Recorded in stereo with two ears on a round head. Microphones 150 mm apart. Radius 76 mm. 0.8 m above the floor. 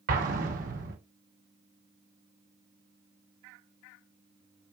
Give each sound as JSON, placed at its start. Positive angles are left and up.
{"t": 0.1, "sound": "an explosion", "side_deg": -50, "distance_m": 0.9}